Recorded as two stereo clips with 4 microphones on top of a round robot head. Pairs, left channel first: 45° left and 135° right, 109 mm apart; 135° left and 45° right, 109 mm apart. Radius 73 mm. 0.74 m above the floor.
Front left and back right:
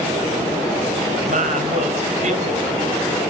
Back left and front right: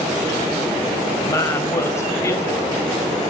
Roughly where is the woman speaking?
Behind right.